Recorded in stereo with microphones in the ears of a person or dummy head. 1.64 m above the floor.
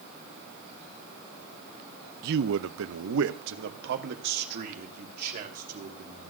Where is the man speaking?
55° right (ahead or behind), 0.7 m; by 6.3 s 45° right (ahead or behind), 3 m.